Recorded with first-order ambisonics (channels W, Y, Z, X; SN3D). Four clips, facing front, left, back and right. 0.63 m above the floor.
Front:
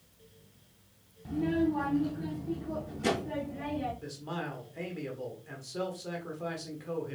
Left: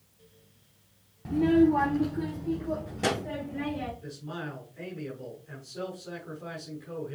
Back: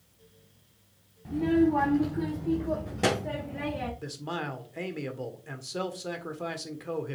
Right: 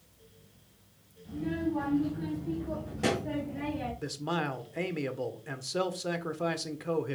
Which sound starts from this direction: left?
A child speaking, at 1.2 s.